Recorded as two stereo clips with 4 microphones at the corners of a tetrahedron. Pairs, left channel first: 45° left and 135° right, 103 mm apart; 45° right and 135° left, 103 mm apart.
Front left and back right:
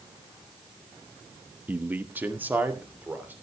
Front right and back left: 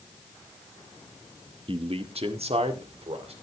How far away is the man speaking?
About 0.7 m.